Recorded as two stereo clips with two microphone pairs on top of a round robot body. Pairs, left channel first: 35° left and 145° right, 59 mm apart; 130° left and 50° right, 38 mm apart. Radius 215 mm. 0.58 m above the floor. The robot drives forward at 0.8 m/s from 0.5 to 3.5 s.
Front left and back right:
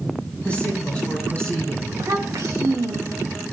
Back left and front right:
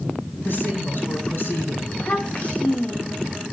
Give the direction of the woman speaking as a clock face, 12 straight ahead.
8 o'clock.